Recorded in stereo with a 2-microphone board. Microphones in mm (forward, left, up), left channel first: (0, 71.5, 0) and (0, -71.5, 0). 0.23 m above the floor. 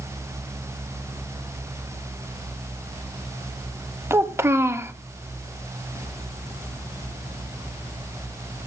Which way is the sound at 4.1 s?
20° right (ahead or behind).